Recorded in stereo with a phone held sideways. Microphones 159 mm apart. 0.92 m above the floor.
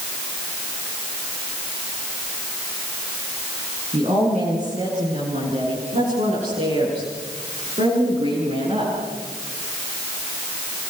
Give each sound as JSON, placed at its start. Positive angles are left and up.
{"t": 3.9, "sound": "a woman speaking", "side_deg": -45, "distance_m": 9.0}